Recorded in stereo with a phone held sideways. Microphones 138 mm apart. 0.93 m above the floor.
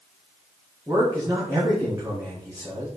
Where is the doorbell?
I don't hear a doorbell.